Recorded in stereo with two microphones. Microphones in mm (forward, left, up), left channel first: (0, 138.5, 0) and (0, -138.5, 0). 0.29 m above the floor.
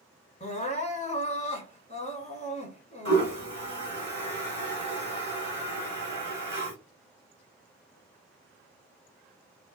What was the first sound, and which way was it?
Crying, 25° left (ahead or behind).